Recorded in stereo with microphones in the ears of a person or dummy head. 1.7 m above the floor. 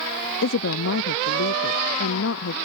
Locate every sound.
0.4 s a woman speaking: 75° left (ahead or behind)